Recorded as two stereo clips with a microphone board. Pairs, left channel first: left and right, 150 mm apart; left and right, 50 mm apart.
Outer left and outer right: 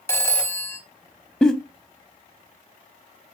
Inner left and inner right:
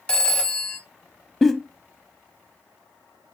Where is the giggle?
5° left (ahead or behind), 0.7 m.